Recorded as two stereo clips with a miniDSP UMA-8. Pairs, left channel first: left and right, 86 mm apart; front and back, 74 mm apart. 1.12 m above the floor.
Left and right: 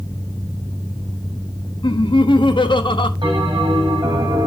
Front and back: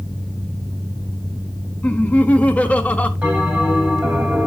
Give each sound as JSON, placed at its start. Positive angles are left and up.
{"t": 1.8, "sound": "laughter", "azimuth_deg": 70, "distance_m": 1.4}
{"t": 3.2, "sound": "a bell", "azimuth_deg": -110, "distance_m": 6.0}